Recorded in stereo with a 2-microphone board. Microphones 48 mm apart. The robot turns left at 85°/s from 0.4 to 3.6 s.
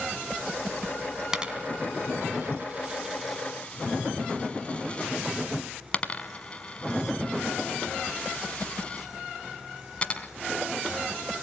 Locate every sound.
1.3 s a dropped coin: 15° right (ahead or behind), 1.1 m; by 10.3 s 25° left (ahead or behind), 1.1 m